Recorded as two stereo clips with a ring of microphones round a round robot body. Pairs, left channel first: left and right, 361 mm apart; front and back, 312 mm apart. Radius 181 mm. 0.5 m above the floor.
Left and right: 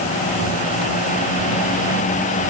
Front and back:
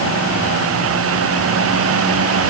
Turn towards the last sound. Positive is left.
No sound to turn to.